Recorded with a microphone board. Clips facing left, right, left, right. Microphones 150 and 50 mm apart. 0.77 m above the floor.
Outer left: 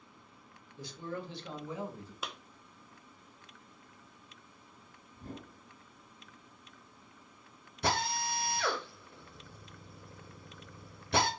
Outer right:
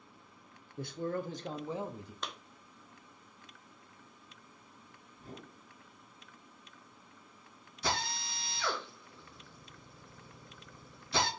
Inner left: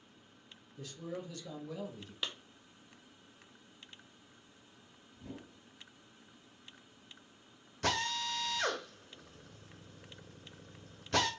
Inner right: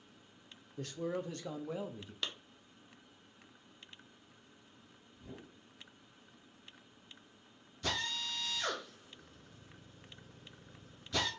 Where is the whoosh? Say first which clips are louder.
Outer left 3 dB, inner left 3 dB; 50° left (ahead or behind), 3 m.